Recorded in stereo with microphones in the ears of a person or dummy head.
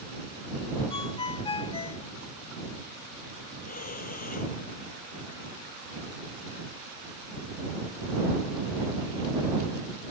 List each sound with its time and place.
0.9 s a ringtone: 25° left (ahead or behind)
3.6 s breathing: 40° left (ahead or behind)